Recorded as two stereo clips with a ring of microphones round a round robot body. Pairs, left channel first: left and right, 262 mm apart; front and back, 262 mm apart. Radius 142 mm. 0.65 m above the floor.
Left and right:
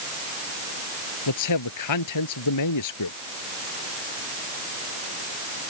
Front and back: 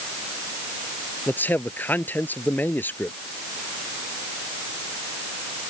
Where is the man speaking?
85° left.